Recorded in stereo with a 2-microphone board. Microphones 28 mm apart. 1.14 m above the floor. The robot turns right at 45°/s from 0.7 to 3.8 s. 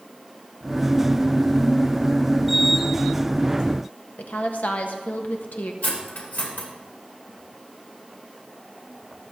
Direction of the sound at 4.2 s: 70° left (ahead or behind).